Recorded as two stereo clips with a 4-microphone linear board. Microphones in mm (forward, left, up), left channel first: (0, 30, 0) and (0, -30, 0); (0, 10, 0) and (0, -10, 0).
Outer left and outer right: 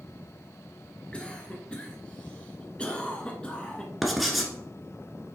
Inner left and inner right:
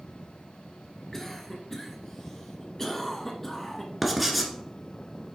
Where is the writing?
Centre (ahead or behind), 1.4 m.